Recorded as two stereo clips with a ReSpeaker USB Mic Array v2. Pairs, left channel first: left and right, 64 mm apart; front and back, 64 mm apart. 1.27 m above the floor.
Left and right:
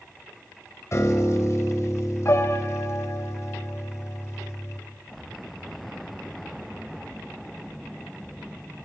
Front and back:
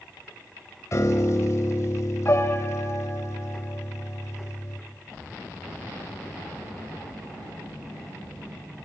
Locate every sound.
0.9 s a piano: 45° left, 3.5 m